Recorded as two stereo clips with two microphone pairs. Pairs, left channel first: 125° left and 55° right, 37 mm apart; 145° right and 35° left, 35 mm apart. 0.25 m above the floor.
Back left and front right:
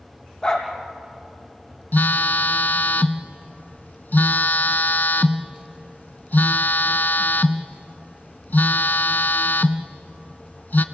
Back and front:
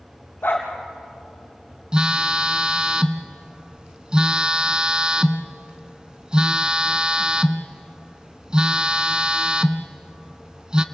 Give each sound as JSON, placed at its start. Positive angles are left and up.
{"t": 0.4, "sound": "a dog barking", "azimuth_deg": -160, "distance_m": 4.0}
{"t": 1.9, "sound": "a phone buzzing", "azimuth_deg": 95, "distance_m": 0.8}